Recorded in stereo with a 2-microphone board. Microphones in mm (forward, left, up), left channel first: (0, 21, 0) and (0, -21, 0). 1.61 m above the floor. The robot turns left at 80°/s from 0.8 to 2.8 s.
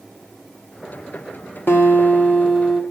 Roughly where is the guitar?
Left.